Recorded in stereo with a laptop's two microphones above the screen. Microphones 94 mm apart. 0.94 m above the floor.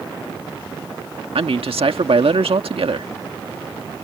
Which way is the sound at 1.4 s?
75° right (ahead or behind).